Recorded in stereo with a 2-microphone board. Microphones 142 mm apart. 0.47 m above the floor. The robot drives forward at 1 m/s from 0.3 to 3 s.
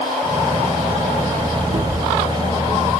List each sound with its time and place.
1.7 s a cupboard door: 80° right, 5 m